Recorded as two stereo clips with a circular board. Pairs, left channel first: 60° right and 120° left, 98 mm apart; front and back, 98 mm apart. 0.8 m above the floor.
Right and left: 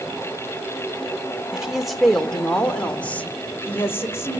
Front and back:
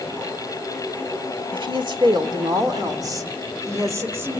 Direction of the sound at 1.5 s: 155° right.